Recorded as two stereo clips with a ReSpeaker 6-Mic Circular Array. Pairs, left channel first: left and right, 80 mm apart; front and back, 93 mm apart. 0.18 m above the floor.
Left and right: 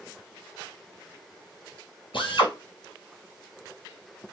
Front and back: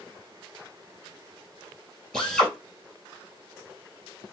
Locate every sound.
2.1 s a drill: 85° left, 2.5 m